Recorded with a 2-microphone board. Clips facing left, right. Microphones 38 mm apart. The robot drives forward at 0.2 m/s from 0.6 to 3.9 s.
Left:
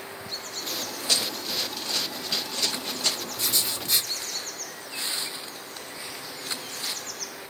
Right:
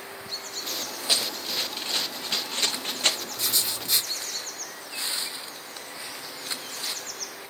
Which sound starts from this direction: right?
Running footsteps, at 1.1 s.